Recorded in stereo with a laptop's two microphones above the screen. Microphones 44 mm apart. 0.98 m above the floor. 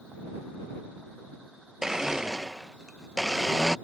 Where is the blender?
15° right (ahead or behind).